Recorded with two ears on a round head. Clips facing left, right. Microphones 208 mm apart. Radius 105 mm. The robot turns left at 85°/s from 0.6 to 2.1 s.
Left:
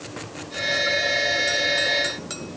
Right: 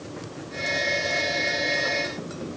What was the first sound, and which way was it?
Only background noise.